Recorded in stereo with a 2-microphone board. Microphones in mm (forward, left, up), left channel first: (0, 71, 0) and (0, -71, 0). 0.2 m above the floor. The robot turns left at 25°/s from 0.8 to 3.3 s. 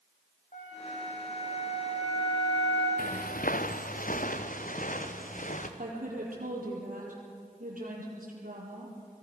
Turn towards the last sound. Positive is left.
turn(degrees=-75)  # may be behind; listen again after turning